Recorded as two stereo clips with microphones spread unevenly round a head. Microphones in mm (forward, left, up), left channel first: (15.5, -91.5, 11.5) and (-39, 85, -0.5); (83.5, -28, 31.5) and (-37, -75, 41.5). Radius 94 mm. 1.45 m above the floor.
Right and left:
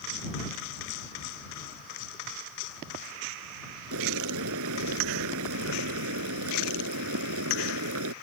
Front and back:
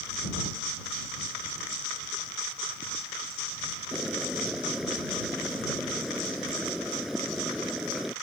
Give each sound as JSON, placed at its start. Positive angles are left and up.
{"t": 3.9, "sound": "boiling", "azimuth_deg": 115}